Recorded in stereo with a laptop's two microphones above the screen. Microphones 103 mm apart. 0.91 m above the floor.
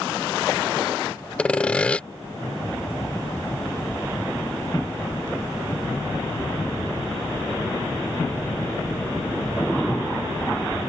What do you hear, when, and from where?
1.4 s sawing: 10° left (ahead or behind)